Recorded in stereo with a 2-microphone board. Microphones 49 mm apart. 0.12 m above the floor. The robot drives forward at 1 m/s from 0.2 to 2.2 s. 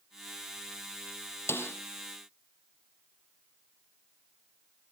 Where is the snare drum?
55° left (ahead or behind), 2.5 m.